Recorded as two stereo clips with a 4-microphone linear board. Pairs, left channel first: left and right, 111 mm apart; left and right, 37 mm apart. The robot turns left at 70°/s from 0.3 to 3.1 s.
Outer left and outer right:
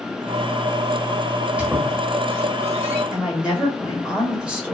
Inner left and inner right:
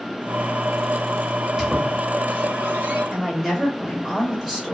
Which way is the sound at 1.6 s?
10° right (ahead or behind).